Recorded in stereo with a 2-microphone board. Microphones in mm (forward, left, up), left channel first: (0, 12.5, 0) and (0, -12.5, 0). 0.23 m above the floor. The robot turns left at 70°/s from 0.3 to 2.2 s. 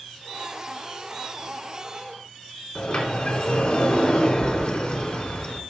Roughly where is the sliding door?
Left.